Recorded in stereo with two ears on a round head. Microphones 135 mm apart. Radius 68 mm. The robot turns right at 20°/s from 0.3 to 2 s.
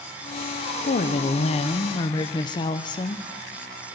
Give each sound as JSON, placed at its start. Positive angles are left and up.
{"t": 0.9, "sound": "a woman speaking", "side_deg": 50, "distance_m": 0.7}